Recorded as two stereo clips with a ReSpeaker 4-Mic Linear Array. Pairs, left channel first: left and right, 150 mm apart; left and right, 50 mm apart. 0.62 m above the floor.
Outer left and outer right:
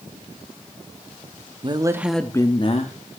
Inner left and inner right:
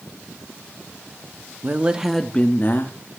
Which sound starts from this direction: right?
A woman speaking, at 1.6 s.